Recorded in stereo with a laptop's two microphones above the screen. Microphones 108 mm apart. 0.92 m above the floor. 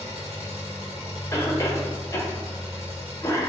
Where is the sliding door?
No sliding door in this recording.